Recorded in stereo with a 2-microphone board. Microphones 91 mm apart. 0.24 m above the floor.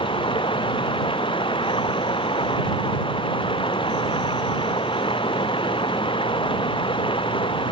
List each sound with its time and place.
0.0 s running water: 70° left (ahead or behind)